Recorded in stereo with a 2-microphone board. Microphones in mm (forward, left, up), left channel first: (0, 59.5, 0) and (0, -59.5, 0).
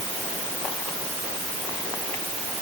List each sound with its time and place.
Only background noise.